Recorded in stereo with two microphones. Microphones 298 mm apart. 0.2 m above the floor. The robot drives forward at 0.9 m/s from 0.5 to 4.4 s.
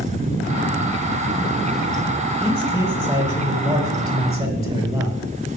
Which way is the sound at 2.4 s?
10° right (ahead or behind).